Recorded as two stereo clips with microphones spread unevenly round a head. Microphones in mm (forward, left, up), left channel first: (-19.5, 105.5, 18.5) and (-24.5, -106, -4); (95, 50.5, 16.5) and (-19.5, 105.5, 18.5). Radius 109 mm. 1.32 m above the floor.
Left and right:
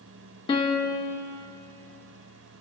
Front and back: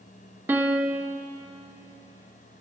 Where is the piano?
95° left, 0.9 m.